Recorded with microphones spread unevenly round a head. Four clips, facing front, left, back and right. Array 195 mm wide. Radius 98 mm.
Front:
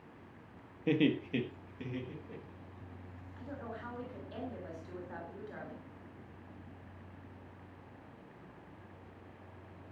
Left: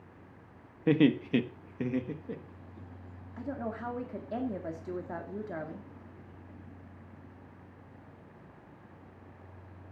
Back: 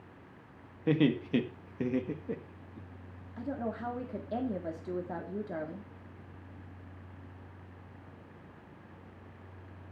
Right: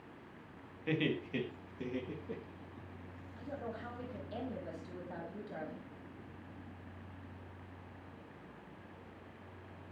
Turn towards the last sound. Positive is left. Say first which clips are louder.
# left 7 dB, back 9 dB
turn(degrees=140)